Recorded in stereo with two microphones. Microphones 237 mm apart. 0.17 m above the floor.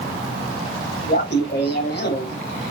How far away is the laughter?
About 5.5 m.